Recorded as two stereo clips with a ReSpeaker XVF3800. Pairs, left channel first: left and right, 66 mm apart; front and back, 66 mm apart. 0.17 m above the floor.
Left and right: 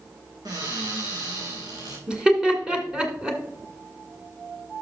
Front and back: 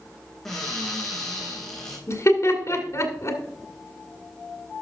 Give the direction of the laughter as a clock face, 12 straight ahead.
1 o'clock.